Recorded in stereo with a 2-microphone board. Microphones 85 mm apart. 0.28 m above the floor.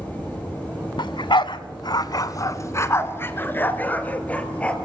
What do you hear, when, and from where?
1.0 s a dog barking: 65° left (ahead or behind), 0.9 m; by 4.8 s 15° left (ahead or behind), 2.5 m